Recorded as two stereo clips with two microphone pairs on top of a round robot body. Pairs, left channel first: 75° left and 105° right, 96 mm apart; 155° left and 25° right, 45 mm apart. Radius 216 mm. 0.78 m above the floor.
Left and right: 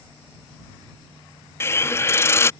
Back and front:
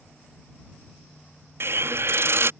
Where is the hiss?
10° left.